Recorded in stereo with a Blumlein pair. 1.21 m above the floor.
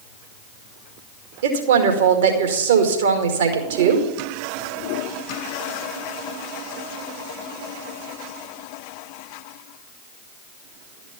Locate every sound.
1.4 s a woman speaking: 55° right, 2 m